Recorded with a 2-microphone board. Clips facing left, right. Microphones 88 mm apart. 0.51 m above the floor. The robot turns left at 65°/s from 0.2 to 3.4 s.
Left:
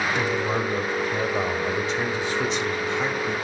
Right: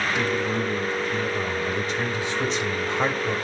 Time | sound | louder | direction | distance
0.1 | a man speaking | even | 145° left | 1.3 m